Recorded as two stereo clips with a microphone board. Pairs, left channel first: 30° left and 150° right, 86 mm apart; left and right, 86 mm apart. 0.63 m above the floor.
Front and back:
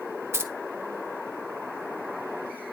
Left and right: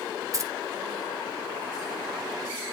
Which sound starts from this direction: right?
Keys jangling, at 0.3 s.